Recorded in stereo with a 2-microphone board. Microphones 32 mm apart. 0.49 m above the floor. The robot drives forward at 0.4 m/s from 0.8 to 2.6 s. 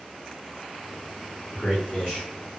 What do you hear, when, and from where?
1.5 s a man speaking: 30° left (ahead or behind), 1.5 m; by 2.3 s 35° left (ahead or behind), 1.4 m